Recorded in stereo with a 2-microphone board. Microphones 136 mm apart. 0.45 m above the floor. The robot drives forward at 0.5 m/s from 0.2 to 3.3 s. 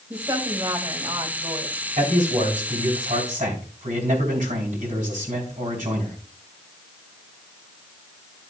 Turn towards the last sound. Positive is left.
turn(degrees=-70)  # may be behind; listen again after turning